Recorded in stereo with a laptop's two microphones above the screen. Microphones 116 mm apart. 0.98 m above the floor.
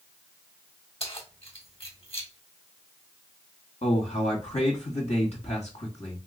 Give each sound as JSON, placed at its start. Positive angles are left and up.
{"t": 1.0, "sound": "keys jangling", "side_deg": 50, "distance_m": 1.5}
{"t": 3.8, "sound": "a man speaking", "side_deg": 65, "distance_m": 2.0}